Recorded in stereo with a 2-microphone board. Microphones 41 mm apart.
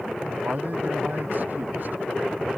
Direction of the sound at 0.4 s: 50° right (ahead or behind).